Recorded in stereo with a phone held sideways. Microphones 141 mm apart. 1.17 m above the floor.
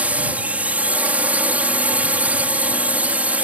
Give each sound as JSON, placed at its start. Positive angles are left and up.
{"t": 0.0, "sound": "a drone", "side_deg": -10}